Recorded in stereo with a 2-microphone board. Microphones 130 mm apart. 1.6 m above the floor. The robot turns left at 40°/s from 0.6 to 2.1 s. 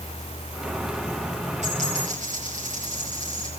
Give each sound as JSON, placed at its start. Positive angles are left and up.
{"t": 1.6, "sound": "a dropped coin", "side_deg": -55, "distance_m": 7.5}